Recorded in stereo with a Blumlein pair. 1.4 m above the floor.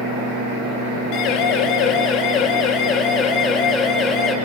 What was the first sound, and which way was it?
A siren, 40° left.